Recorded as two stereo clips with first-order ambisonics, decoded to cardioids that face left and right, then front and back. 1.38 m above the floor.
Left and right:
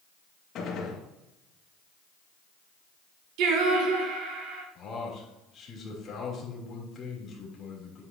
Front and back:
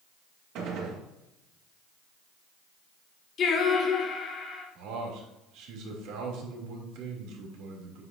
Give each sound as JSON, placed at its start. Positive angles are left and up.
{"t": 0.6, "sound": "a gunshot", "azimuth_deg": 140, "distance_m": 2.0}
{"t": 3.4, "sound": "singing", "azimuth_deg": -60, "distance_m": 1.3}
{"t": 4.8, "sound": "a man speaking", "azimuth_deg": 155, "distance_m": 3.0}